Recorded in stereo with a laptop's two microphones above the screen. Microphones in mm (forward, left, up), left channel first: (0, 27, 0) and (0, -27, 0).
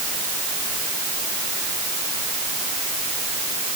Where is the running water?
No running water in this recording.